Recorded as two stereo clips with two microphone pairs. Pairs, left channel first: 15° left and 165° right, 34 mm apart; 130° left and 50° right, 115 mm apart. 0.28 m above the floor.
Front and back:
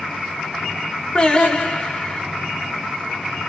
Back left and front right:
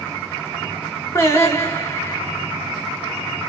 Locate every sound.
1.1 s singing: 70° left, 1.4 m